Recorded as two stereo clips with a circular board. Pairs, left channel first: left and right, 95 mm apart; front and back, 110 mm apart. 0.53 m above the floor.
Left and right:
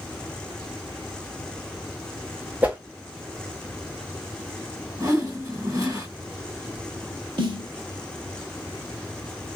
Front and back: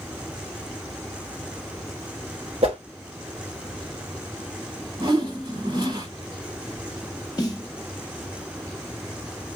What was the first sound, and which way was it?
A whoosh, 160° right.